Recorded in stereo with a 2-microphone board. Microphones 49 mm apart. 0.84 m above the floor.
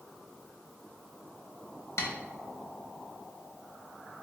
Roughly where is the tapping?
Left.